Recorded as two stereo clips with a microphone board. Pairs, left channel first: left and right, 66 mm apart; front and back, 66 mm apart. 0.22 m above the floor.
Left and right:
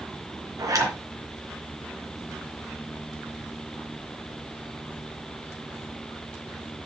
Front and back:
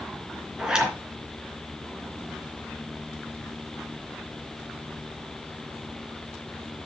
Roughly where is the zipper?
Right.